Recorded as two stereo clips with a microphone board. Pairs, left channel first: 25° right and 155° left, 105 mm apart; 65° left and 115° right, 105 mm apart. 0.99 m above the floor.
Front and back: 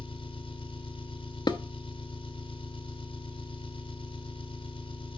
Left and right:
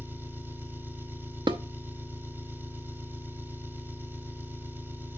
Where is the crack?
No crack in this recording.